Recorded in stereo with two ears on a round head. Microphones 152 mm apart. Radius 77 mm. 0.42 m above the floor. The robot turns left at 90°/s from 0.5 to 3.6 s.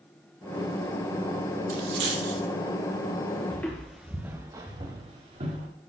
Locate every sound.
1.7 s a dropped coin: 55° right (ahead or behind), 2.0 m; by 2.4 s 65° right (ahead or behind), 2.0 m
3.5 s footsteps: 10° left (ahead or behind), 2.0 m; by 5.7 s 45° right (ahead or behind), 3.5 m